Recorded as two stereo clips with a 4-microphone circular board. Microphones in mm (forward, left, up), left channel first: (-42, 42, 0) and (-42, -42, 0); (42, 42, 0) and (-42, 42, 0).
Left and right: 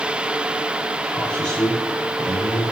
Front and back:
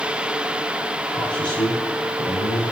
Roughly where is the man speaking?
Ahead.